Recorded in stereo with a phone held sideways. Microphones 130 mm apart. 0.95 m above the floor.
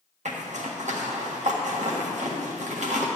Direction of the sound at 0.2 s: 65° right (ahead or behind).